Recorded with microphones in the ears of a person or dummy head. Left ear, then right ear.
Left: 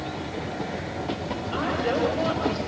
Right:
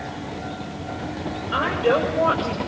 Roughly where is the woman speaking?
Right.